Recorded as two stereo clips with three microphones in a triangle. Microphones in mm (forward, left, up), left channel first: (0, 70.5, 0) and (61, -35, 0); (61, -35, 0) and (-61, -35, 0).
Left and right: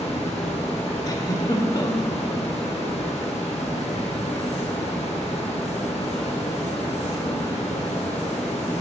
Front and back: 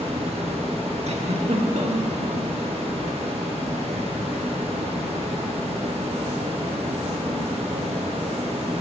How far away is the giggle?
About 1.2 m.